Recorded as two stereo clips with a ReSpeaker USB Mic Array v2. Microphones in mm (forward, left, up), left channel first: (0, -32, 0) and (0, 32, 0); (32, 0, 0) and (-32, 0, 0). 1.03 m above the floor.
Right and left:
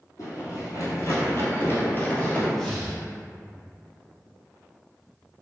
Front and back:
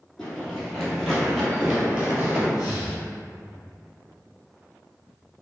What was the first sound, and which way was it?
Running footsteps, 75° right.